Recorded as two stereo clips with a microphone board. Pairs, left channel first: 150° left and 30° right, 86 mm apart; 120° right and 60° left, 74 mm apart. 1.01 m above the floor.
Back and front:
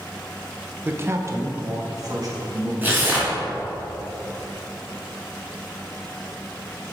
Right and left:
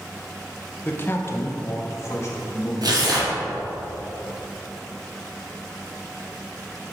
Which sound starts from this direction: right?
A man speaking, at 0.8 s.